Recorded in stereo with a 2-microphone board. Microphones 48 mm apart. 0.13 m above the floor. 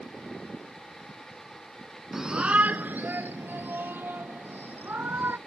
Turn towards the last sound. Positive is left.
turn(degrees=-45)  # may be behind; listen again after turning